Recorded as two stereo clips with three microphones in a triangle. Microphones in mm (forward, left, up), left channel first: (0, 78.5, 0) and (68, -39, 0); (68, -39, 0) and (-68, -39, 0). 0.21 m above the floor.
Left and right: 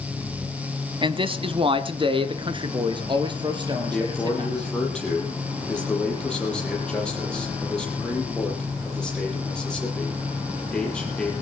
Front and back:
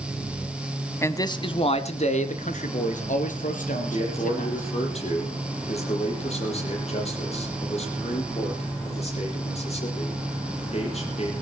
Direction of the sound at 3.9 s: 35° left.